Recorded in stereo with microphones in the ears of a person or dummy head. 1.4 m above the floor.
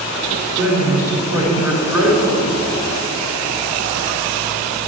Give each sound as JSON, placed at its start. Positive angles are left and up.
{"t": 0.6, "sound": "a man speaking", "side_deg": -15, "distance_m": 3.5}